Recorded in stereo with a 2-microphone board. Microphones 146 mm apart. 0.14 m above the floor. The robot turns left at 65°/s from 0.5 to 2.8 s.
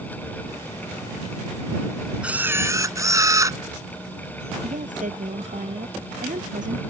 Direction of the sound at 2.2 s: 10° right (ahead or behind).